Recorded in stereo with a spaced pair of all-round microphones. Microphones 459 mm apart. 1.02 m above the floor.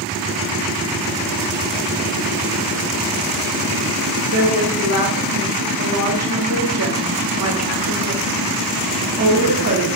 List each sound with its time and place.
4.3 s a woman speaking: 30° right (ahead or behind), 1.1 m